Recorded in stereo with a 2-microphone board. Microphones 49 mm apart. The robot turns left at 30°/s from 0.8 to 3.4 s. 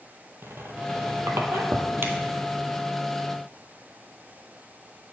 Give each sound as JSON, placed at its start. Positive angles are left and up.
{"t": 0.4, "sound": "a squeak", "side_deg": -70, "distance_m": 0.8}